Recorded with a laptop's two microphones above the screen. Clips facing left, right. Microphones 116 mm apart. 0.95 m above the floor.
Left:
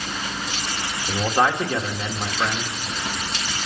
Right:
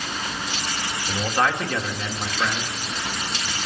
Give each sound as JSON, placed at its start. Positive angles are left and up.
{"t": 1.1, "sound": "a man speaking", "side_deg": 15, "distance_m": 1.7}